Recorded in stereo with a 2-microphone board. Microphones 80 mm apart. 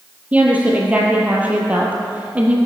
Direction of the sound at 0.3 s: 15° right (ahead or behind).